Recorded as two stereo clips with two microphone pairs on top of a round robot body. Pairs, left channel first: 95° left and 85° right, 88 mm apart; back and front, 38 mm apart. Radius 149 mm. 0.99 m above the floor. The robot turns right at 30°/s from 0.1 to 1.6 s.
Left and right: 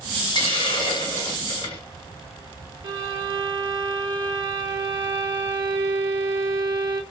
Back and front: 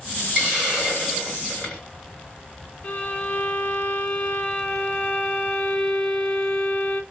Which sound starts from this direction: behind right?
A violin, at 2.8 s.